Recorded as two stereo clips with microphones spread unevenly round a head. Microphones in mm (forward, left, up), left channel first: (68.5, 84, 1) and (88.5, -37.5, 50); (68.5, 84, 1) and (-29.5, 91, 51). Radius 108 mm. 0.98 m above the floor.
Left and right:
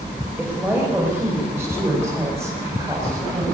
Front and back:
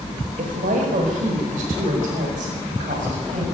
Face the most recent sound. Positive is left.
turn(degrees=-160)